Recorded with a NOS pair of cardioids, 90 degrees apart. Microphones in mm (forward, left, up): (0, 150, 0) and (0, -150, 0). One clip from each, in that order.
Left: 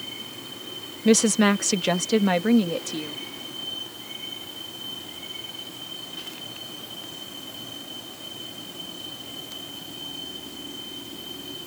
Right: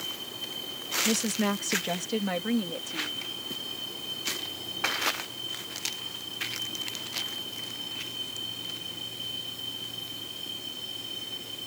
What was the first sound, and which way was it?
A woman speaking, 55° left.